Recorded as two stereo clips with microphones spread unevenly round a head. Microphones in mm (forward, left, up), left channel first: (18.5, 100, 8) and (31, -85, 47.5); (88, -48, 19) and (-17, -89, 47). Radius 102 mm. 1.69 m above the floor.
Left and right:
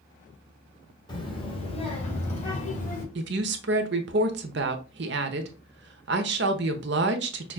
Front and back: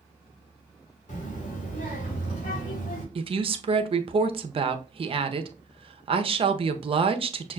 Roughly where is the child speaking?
Ahead.